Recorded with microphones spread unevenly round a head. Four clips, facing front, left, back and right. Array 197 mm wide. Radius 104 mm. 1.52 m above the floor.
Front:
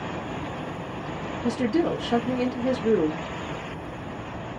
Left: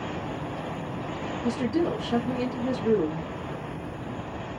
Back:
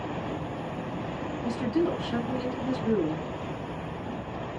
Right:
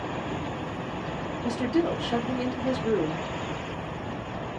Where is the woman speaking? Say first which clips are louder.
Even, front 4 dB; 5° left, 1.3 m.